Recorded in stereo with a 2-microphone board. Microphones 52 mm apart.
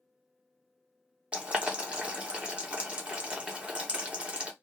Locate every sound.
1.3 s boiling: 25° right (ahead or behind), 0.8 m